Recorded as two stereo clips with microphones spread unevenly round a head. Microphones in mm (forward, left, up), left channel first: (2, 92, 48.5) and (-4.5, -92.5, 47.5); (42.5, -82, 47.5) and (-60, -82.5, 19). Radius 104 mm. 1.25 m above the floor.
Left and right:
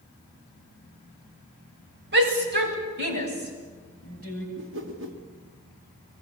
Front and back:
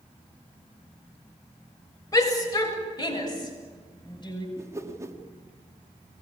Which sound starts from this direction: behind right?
A whoosh, at 4.6 s.